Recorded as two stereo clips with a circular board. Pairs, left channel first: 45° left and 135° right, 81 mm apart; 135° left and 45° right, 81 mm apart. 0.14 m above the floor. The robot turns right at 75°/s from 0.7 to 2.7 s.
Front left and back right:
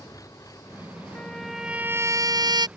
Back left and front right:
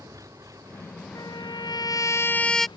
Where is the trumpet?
110° left; by 2.7 s 135° right.